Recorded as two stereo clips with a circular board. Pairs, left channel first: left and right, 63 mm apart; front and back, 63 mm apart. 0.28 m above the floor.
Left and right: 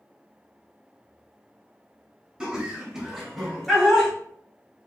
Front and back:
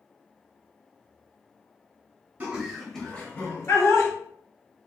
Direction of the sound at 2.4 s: 150° right.